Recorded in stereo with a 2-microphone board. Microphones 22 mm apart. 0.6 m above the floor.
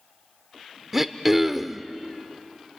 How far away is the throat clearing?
About 0.6 m.